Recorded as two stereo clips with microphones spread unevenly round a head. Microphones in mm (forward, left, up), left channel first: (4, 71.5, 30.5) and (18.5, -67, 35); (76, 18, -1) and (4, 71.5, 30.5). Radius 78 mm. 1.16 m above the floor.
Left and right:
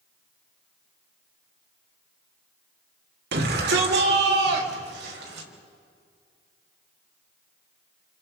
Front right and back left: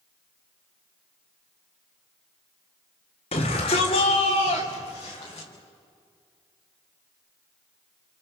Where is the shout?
80° right, 3 m; by 5.5 s 100° right, 6 m.